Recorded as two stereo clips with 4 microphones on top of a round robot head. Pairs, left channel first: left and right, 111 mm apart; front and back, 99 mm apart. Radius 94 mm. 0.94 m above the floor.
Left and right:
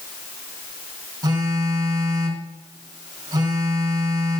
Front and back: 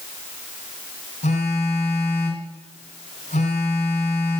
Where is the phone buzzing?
35° right, 1.7 m.